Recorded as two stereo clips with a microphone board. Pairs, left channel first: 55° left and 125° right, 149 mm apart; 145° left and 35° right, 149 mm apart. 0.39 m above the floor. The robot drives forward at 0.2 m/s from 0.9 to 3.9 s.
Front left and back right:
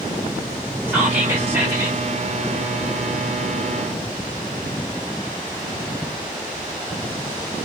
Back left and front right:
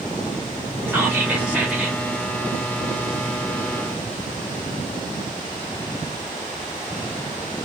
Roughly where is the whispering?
Right.